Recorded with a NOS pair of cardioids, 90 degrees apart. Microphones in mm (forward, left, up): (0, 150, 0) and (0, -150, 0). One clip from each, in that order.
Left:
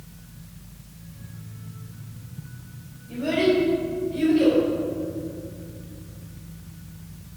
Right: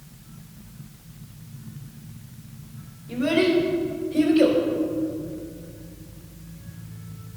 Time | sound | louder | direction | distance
3.1 | a child speaking | right 1 dB | 45° right | 3.5 m